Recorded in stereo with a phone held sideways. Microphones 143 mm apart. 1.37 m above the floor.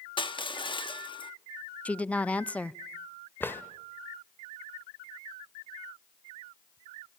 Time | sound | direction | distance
0.2 | crushing | 35° left (ahead or behind) | 1.1 m
1.9 | a woman speaking | 10° left (ahead or behind) | 0.5 m
3.4 | a drawer | 15° left (ahead or behind) | 1.7 m